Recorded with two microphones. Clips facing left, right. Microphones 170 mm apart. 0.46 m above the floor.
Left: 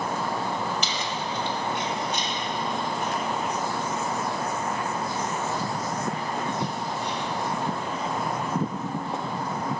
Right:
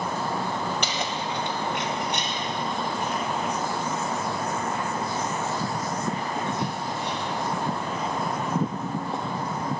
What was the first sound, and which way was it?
Keys jangling, 60° right (ahead or behind).